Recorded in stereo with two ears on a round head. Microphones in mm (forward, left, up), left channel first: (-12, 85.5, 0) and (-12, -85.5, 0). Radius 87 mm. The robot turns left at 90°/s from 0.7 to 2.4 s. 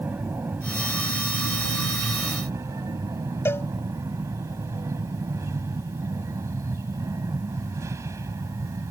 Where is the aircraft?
10° right; by 8.9 s 165° right.